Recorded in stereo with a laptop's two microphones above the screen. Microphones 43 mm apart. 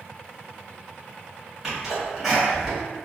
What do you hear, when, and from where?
1.6 s a sneeze: centre (ahead or behind), 1.3 m